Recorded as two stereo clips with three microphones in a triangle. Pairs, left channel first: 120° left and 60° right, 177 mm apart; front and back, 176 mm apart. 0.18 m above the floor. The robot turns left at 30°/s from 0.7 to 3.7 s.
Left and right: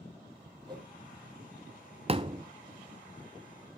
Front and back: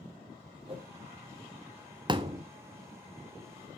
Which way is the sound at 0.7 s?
125° right.